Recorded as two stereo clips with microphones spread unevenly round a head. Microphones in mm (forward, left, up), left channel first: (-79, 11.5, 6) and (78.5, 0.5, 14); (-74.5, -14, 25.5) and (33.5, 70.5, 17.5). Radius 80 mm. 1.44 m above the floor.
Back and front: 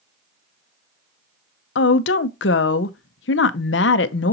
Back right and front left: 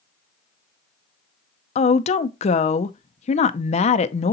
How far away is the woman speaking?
About 0.6 m.